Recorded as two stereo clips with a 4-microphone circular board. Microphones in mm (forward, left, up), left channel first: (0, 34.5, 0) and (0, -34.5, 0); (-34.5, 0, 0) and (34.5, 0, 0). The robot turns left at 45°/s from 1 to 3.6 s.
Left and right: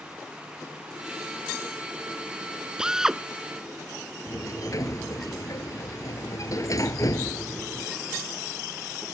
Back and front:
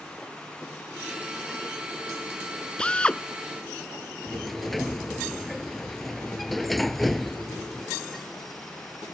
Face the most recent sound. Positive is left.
turn(degrees=90)